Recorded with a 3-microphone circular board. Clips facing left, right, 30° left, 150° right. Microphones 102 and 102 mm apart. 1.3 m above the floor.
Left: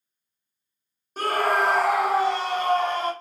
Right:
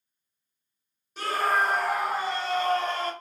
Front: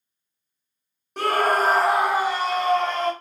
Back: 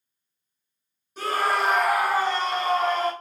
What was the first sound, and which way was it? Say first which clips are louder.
A scream: left 3 dB, front 4 dB; 50° left.